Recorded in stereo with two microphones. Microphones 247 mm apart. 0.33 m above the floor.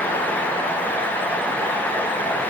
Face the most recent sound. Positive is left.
No sound to turn to.